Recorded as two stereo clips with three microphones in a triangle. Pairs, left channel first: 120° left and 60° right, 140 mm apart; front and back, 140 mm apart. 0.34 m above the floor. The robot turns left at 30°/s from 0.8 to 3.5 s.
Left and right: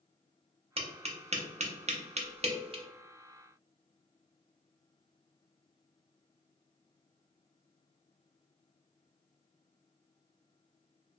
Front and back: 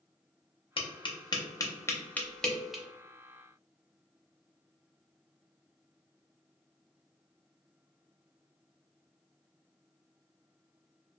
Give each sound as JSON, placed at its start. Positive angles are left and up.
{"t": 0.8, "sound": "tapping", "azimuth_deg": -35, "distance_m": 0.5}